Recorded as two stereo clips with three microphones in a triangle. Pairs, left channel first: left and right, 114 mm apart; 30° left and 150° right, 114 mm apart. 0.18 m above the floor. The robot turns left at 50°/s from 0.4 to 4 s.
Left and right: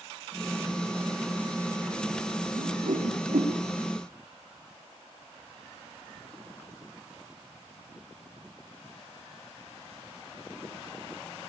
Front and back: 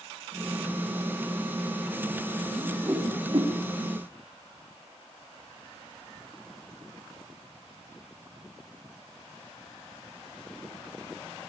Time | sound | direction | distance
2.6 | a whoosh | 65° right | 4.5 m